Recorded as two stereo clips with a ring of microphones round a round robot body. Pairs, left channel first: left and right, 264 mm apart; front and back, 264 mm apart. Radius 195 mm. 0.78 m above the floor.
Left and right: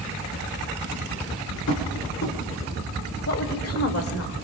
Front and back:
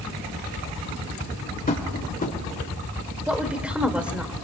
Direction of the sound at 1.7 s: 55° left.